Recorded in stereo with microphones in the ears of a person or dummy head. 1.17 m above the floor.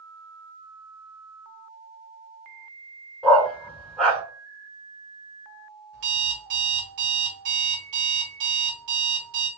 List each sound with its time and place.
3.2 s a dog barking: centre (ahead or behind), 1.8 m
5.9 s an alarm clock: 65° right (ahead or behind), 1.8 m